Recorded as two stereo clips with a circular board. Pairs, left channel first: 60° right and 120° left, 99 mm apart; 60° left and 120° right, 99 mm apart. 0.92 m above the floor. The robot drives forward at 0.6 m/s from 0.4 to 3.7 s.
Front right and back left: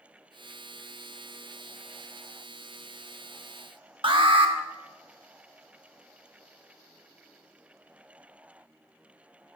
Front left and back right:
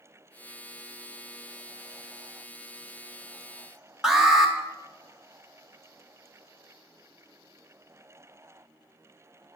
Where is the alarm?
155° left, 0.8 m.